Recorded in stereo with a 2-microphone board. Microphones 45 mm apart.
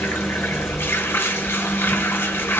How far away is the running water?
About 0.9 m.